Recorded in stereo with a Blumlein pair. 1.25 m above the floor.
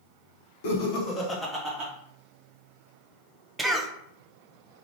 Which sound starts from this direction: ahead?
A cough, at 3.6 s.